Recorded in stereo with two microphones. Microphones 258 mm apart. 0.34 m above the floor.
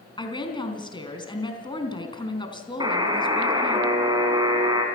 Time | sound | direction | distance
0.2 | a woman speaking | 20° left (ahead or behind) | 3.5 m
2.8 | a buzzer | 15° right (ahead or behind) | 3.5 m